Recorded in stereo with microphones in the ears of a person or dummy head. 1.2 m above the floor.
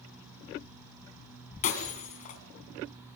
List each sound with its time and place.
1.6 s breaking glass: 45° left (ahead or behind), 2.5 m